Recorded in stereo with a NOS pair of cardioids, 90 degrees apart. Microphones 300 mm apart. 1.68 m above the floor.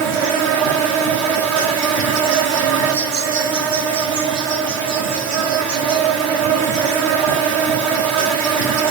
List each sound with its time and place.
0.0 s an insect: 65° right, 0.7 m